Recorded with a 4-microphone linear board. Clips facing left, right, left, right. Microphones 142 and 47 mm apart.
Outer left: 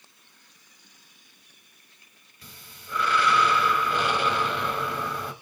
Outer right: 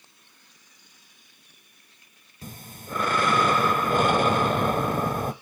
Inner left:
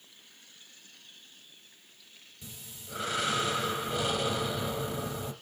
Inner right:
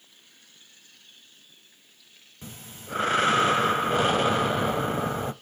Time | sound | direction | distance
2.4 | breathing | 50° right (ahead or behind) | 0.5 m